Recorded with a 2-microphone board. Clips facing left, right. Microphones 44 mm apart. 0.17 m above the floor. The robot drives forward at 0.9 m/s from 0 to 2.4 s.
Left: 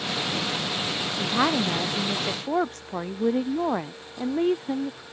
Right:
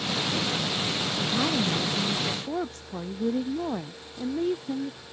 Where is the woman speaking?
55° left (ahead or behind); by 5.0 s 50° left (ahead or behind).